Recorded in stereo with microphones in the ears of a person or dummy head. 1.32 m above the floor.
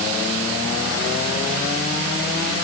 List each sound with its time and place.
Only background noise.